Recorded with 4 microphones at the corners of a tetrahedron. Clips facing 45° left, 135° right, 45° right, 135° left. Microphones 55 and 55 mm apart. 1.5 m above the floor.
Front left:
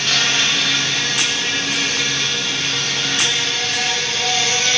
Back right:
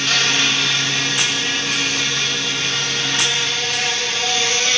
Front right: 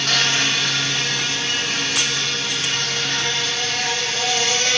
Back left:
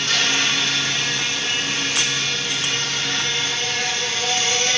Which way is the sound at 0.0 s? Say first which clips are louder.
Even, front right 1 dB; 50° right.